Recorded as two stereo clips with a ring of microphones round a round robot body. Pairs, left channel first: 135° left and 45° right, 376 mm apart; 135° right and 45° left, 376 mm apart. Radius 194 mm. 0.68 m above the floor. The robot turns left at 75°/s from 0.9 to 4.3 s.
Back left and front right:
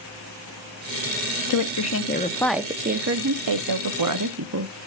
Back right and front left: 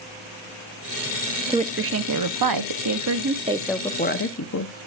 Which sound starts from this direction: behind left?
A woman speaking, at 1.5 s.